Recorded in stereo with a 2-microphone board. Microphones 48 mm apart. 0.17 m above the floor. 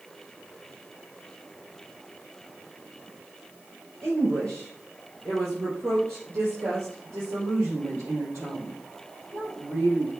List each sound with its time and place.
4.0 s a woman speaking: 65° right (ahead or behind), 3 m; by 10.1 s 60° right (ahead or behind), 5.5 m